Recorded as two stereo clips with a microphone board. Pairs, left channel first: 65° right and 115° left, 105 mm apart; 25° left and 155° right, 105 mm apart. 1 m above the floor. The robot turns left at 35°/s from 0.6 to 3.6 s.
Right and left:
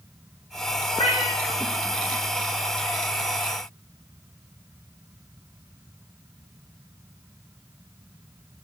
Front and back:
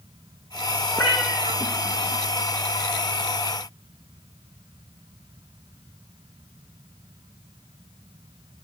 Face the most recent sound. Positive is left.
turn(degrees=-145)